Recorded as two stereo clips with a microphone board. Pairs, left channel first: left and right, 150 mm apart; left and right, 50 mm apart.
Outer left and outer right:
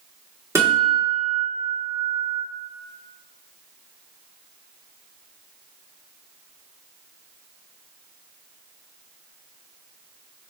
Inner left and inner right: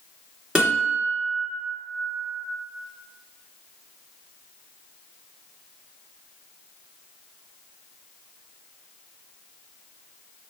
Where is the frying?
No frying in this recording.